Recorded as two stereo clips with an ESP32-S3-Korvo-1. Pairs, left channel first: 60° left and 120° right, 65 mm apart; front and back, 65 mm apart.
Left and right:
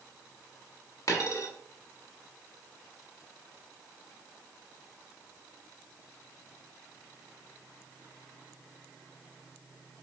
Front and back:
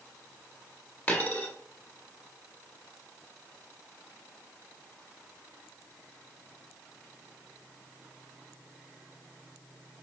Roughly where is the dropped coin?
Ahead left.